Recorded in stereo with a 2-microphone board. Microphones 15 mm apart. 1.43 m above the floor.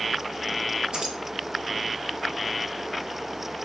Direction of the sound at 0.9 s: 60° right (ahead or behind).